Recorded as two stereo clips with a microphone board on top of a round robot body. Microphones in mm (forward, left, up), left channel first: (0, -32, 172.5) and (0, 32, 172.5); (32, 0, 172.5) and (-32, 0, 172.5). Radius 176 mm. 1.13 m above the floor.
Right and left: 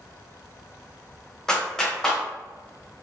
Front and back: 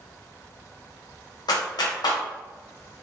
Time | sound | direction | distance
1.5 | a clap | 10° right | 0.5 m